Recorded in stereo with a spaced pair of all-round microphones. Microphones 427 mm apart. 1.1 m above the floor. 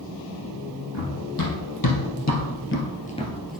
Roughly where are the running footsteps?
Left.